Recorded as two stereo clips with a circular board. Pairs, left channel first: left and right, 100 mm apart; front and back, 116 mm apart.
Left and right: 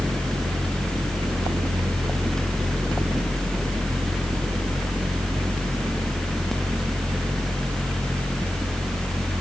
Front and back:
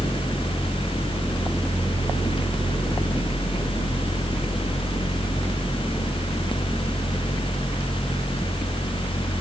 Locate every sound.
Only background noise.